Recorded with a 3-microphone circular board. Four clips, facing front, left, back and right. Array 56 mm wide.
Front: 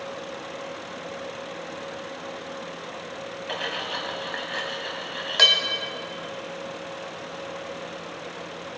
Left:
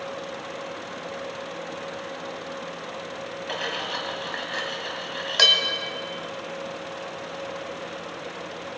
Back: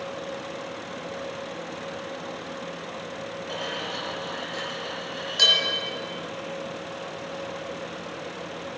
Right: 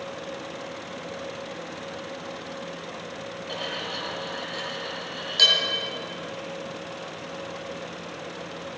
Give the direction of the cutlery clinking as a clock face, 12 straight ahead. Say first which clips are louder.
Left 3 dB, front 3 dB; 11 o'clock.